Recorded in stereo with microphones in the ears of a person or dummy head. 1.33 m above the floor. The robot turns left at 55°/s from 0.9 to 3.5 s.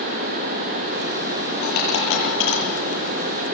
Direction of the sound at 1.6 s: 60° left (ahead or behind).